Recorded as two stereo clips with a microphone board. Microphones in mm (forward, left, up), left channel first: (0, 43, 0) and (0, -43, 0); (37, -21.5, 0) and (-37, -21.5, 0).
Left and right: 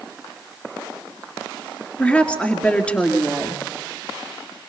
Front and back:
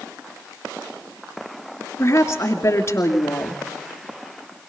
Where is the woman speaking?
25° left, 2 m.